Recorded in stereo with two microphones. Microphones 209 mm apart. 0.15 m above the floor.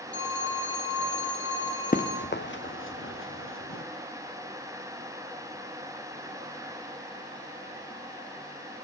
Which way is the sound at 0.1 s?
60° left (ahead or behind).